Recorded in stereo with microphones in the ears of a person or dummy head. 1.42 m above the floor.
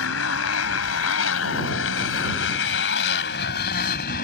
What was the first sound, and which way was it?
A motorcycle, 75° left (ahead or behind).